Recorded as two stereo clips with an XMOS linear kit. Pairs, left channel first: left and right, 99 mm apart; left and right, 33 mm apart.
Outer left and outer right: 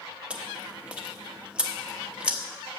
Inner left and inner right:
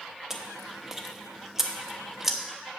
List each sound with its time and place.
0.3 s chewing: 10° right (ahead or behind), 1.0 m